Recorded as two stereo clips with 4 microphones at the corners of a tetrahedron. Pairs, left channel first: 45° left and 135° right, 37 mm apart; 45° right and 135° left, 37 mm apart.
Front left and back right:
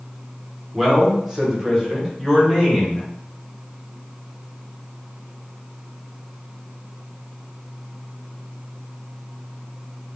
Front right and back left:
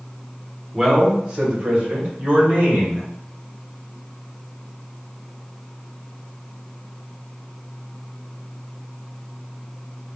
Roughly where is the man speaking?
Behind.